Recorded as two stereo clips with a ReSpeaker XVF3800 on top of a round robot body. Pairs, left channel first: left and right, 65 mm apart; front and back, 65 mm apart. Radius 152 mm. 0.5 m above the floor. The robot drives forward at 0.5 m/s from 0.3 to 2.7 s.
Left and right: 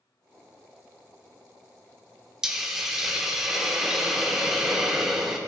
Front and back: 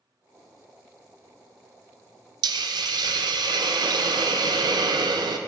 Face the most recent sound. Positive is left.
turn(degrees=-175)